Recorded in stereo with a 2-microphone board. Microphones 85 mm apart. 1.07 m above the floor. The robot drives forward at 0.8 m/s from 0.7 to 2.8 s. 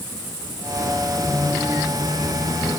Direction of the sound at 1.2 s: 35° left (ahead or behind).